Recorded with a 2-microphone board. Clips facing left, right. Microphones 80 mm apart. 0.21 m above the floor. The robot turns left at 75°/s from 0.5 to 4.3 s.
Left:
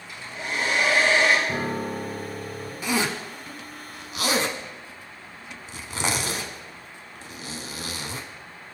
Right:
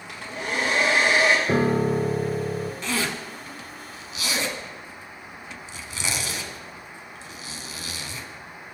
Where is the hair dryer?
120° right, 3 m; by 1.4 s 175° left, 3 m.